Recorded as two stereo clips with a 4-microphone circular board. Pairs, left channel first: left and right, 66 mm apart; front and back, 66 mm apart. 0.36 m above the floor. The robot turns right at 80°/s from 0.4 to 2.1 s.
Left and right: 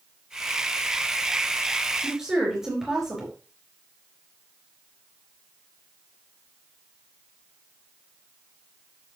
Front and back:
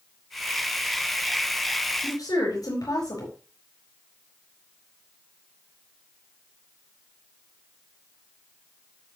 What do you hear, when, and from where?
2.0 s a woman speaking: 15° right, 5 m; by 3.3 s 5° right, 5 m